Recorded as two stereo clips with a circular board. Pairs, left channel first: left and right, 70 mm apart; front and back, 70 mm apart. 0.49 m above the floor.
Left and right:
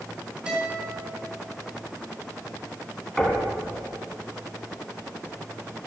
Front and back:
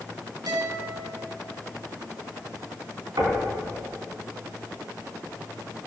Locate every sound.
0.5 s a guitar: 165° right, 3.5 m
3.2 s knocking: 175° left, 3 m